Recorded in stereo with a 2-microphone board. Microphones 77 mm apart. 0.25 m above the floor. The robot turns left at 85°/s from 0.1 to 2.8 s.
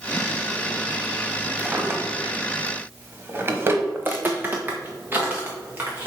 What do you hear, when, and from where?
1.6 s a drawer: 15° right (ahead or behind), 0.9 m; by 3.8 s 30° right (ahead or behind), 0.9 m
4.0 s footsteps: 25° right (ahead or behind), 0.9 m